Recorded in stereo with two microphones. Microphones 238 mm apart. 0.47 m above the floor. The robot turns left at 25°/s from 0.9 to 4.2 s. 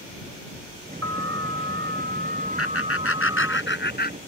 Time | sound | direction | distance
1.0 | an alarm | 105° right | ?
2.6 | laughter | 80° left | ?